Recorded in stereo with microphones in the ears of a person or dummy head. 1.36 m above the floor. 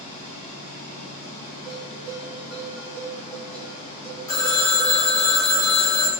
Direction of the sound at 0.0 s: 30° left (ahead or behind).